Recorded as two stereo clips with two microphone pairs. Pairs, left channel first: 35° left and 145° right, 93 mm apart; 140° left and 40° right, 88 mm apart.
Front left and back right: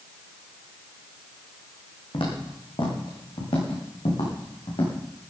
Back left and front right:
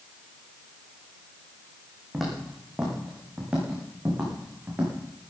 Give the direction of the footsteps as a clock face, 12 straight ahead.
10 o'clock.